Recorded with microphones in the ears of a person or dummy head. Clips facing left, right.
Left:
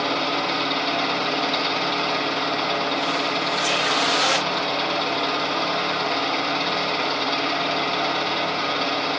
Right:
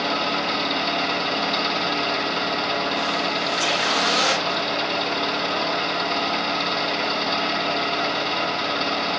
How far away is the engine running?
About 5.5 m.